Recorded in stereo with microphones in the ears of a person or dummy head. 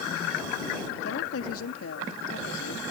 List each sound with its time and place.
1.0 s a woman speaking: 85° left; by 2.8 s 75° left (ahead or behind)